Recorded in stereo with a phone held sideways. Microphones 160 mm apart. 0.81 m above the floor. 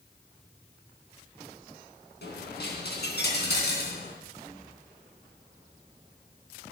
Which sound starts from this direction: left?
A dropped coin, at 2.2 s.